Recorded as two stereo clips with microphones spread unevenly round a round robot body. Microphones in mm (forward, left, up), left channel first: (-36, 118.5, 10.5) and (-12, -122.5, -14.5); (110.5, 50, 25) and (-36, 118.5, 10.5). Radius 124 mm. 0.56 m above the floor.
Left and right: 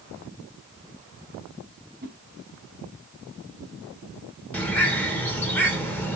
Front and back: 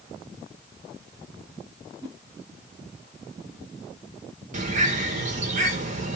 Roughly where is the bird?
Behind.